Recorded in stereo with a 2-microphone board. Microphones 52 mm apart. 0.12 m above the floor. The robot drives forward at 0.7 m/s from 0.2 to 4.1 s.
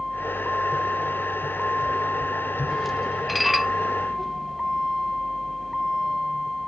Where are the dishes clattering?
Centre (ahead or behind).